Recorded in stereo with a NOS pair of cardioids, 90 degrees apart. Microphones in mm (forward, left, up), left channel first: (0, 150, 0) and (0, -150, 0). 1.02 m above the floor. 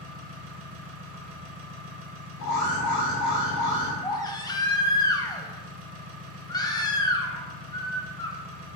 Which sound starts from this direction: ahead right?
An engine running, at 0.0 s.